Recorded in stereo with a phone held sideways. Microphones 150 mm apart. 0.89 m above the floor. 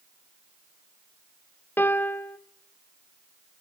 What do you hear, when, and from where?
1.8 s a piano: 15° left (ahead or behind), 0.9 m